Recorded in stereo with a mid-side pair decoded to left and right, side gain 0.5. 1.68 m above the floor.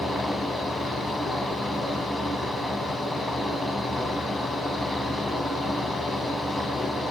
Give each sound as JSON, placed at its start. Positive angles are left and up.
{"t": 0.0, "sound": "a fan", "azimuth_deg": 20, "distance_m": 1.0}